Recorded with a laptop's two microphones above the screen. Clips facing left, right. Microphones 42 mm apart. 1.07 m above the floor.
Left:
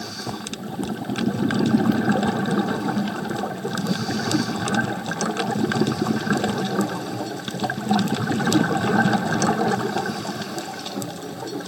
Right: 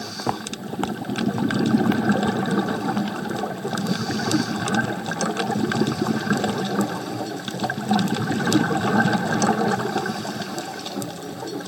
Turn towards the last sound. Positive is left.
turn(degrees=-55)  # may be behind; listen again after turning